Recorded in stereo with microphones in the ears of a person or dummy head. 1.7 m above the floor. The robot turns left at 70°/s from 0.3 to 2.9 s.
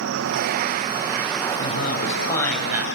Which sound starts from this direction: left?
A man speaking, at 1.6 s.